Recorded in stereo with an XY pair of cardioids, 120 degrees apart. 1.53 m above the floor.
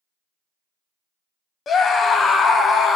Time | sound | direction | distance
1.7 | a scream | 40° left | 0.7 m